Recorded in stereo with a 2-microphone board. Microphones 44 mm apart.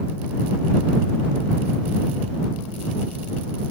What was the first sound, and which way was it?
Only background noise.